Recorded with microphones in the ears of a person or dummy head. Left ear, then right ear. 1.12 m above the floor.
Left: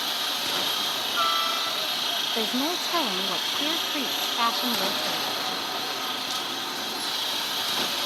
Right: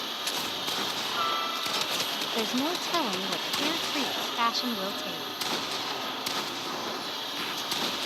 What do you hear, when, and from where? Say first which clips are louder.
0.0 s a helicopter: left 4 dB; 30° left (ahead or behind)
2.4 s a woman speaking: left 3 dB; centre (ahead or behind)